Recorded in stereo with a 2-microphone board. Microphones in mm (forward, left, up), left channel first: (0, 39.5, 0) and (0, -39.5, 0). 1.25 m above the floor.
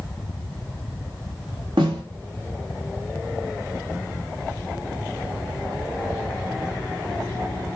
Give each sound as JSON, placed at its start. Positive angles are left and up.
{"t": 1.8, "sound": "a snare drum", "side_deg": -85, "distance_m": 3.0}